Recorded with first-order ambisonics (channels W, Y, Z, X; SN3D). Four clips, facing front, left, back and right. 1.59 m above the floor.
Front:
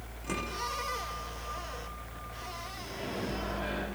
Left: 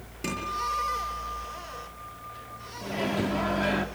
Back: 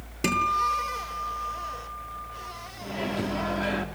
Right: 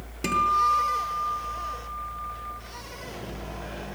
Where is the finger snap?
I don't hear a finger snap.